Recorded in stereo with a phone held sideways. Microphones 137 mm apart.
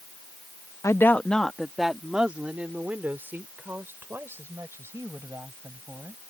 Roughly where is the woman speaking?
Left.